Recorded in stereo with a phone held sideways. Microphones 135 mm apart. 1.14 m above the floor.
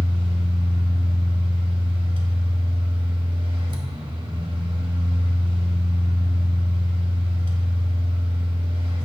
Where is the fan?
40° right (ahead or behind), 1.2 m.